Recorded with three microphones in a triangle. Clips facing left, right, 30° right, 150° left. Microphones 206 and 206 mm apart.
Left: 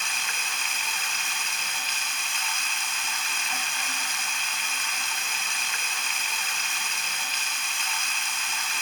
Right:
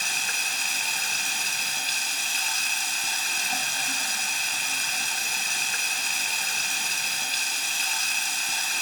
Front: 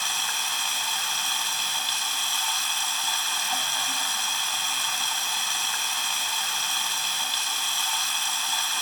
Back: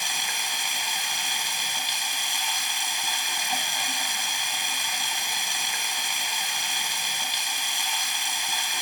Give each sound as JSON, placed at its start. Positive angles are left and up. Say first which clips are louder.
{"t": 0.0, "sound": "running water", "louder": "even, even", "azimuth_deg": -135, "distance_m": 0.9}